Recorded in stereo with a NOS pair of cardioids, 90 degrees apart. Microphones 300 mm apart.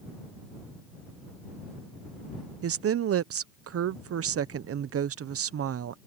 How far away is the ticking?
I don't hear ticking.